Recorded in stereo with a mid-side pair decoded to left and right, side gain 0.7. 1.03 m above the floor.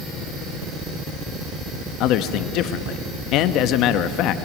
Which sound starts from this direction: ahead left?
A man speaking, at 2.0 s.